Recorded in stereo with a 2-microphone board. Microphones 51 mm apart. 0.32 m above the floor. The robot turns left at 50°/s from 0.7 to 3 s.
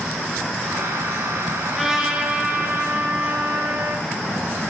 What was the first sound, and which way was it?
A trumpet, 5° left.